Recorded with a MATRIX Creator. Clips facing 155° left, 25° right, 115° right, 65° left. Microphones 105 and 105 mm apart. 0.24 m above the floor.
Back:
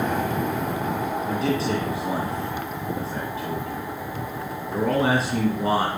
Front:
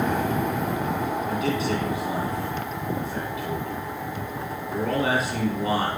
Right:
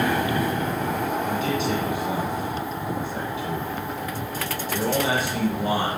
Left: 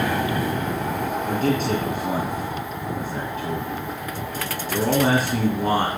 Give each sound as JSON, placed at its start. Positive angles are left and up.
{"t": 1.3, "sound": "a man speaking", "azimuth_deg": 105, "distance_m": 3.0}